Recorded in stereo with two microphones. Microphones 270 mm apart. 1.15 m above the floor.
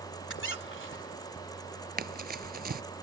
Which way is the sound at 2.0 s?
35° right (ahead or behind).